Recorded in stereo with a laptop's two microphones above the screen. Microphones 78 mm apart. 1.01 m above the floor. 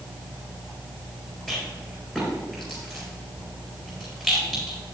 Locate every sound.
1.5 s a rattle: centre (ahead or behind), 4 m